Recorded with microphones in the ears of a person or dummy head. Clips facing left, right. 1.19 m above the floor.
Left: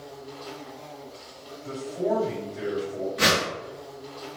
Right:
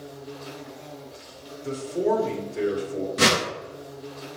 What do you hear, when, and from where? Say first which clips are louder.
0.0 s an insect: right 1 dB; 25° right (ahead or behind), 1.1 m
1.6 s a man speaking: right 3 dB; 70° right (ahead or behind), 2.0 m
3.2 s a whoosh: right 3 dB; 60° right (ahead or behind), 1.0 m